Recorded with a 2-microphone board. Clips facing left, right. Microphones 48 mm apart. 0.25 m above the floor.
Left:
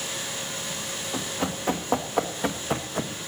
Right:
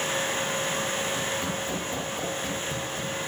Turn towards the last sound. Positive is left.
turn(degrees=80)